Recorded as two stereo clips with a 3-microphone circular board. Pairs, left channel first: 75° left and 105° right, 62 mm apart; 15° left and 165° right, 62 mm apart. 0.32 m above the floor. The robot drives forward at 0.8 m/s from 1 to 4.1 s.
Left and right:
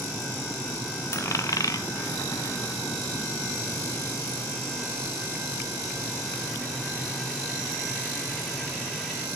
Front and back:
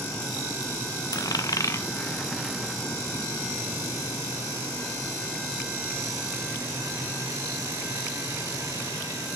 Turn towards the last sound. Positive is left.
turn(degrees=160)